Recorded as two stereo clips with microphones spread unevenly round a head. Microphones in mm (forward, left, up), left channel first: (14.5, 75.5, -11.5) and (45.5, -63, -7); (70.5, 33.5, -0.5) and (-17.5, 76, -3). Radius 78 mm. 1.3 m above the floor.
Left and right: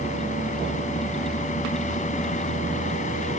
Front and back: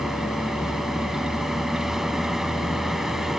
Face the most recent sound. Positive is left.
turn(degrees=65)